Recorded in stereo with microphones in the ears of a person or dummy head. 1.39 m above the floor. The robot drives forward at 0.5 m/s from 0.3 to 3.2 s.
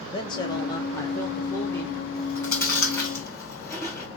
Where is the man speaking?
25° left (ahead or behind), 0.8 m; by 2.0 s 10° left (ahead or behind), 1.6 m.